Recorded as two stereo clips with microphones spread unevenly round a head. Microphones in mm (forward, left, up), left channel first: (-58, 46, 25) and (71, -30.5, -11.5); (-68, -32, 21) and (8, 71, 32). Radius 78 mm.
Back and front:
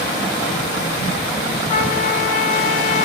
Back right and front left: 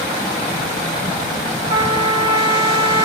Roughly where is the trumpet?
Left.